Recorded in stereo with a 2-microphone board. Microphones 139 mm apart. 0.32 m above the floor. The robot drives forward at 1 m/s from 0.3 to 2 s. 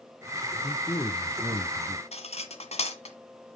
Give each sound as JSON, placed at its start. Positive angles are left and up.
{"t": 0.6, "sound": "a man speaking", "side_deg": 20, "distance_m": 0.9}
{"t": 2.1, "sound": "cutlery clinking", "side_deg": 50, "distance_m": 1.7}